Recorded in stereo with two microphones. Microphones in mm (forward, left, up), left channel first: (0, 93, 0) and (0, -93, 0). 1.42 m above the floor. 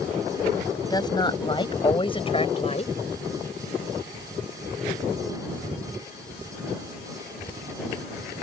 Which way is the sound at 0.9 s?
20° left (ahead or behind).